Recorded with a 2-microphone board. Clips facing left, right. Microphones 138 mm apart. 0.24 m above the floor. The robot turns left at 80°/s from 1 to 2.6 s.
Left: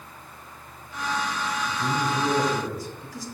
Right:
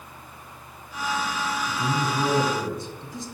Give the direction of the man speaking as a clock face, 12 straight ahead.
2 o'clock.